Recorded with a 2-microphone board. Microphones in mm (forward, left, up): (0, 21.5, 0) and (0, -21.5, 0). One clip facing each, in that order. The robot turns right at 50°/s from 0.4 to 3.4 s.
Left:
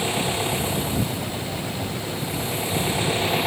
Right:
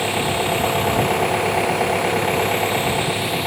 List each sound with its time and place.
0.0 s an engine running: 155° right; by 3.5 s 5° right